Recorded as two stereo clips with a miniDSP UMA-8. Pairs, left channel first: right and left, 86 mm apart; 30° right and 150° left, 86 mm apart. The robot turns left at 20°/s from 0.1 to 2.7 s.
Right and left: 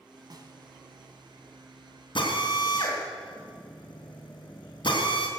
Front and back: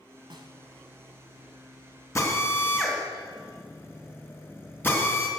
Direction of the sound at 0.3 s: 125° left.